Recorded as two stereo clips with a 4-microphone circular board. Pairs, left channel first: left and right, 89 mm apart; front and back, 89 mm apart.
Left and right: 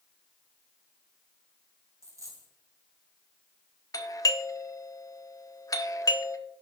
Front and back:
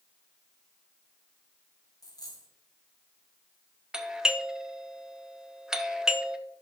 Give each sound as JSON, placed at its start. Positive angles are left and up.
{"t": 2.0, "sound": "a dropped coin", "azimuth_deg": -40, "distance_m": 2.5}
{"t": 3.9, "sound": "a doorbell", "azimuth_deg": 100, "distance_m": 0.8}